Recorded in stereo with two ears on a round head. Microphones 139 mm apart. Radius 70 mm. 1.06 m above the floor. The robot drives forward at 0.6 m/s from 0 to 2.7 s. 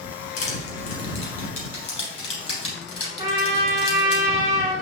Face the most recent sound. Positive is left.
turn(degrees=-25)  # may be behind; listen again after turning